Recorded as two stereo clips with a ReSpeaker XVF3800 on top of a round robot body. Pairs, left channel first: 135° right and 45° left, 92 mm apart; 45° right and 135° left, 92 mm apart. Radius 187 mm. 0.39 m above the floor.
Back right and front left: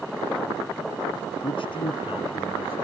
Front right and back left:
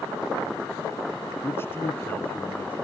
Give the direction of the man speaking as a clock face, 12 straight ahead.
4 o'clock.